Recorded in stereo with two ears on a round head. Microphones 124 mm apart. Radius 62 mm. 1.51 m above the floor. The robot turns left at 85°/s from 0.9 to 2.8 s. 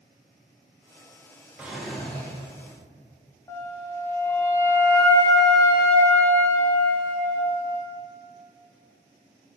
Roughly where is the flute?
Left.